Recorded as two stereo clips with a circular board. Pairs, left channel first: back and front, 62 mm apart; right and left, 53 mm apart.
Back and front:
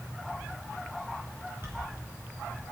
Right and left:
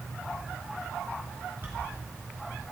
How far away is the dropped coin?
About 2.5 m.